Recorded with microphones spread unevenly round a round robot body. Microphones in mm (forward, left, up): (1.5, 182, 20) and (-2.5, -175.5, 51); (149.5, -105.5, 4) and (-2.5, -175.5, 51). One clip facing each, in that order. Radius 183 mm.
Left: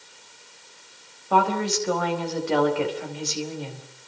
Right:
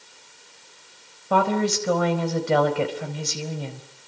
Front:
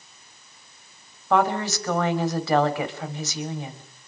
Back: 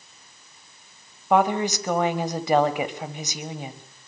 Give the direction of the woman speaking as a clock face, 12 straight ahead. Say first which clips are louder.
Right 2 dB, back 2 dB; 3 o'clock.